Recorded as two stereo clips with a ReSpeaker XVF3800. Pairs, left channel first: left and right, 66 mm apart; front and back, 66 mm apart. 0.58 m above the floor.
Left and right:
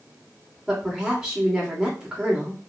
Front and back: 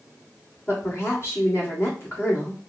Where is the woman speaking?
10° right, 1.5 m.